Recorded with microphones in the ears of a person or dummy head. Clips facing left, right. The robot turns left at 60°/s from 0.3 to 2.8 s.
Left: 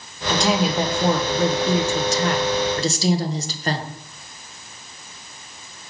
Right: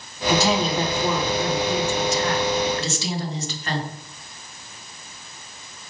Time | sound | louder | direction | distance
0.3 | a woman speaking | even | 170° right | 1.0 m